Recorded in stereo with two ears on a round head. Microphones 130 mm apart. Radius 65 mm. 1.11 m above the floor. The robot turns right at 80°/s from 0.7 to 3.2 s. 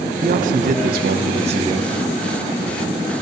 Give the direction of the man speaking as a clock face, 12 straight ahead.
4 o'clock.